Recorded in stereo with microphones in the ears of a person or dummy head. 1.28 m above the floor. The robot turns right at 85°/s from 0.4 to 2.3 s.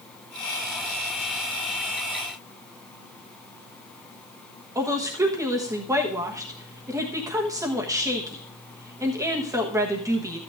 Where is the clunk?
I don't hear a clunk.